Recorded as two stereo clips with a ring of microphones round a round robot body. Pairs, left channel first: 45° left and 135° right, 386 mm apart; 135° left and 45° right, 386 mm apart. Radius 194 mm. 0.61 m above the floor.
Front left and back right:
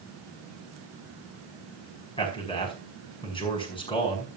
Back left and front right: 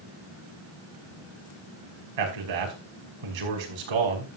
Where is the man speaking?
30° right, 5 m.